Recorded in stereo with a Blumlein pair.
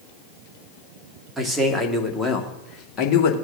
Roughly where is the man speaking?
Ahead.